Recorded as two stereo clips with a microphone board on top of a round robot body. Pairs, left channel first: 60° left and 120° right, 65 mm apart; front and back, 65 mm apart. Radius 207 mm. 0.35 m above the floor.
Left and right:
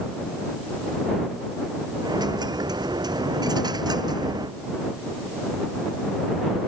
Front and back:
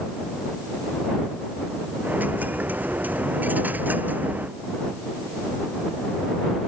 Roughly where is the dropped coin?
Behind right.